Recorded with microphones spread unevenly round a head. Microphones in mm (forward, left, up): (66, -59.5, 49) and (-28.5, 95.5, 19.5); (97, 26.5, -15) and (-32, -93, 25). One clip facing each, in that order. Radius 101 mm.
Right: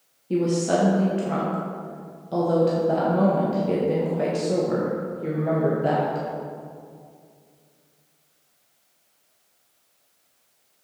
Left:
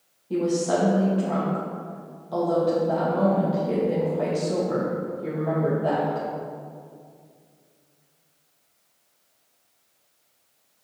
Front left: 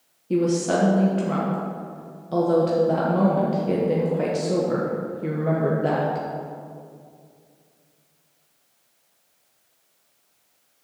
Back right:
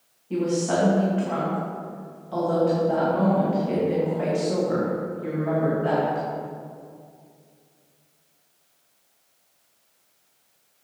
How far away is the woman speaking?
About 1.1 m.